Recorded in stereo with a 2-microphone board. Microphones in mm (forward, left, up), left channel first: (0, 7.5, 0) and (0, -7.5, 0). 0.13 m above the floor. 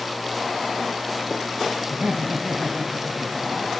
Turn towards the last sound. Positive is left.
turn(degrees=-55)  # may be behind; listen again after turning